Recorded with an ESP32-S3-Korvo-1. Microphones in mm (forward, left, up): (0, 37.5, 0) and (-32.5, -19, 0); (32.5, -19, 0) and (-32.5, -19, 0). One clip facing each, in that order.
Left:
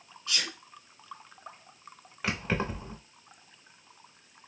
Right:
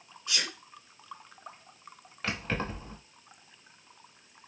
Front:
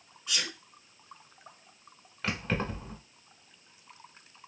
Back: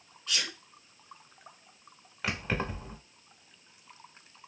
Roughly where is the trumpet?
No trumpet in this recording.